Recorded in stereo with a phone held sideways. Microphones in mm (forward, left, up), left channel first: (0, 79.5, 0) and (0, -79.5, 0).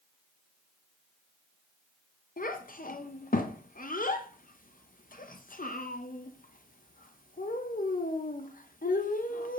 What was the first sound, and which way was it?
A child speaking, 60° left (ahead or behind).